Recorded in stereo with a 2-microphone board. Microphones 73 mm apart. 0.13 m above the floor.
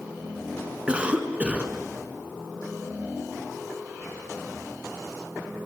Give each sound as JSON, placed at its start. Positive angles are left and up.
{"t": 0.9, "sound": "a cough", "side_deg": -15, "distance_m": 1.5}